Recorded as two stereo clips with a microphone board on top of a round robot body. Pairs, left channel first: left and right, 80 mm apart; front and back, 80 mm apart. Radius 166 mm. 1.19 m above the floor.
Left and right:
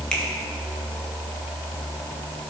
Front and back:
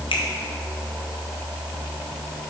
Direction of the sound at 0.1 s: 10° left.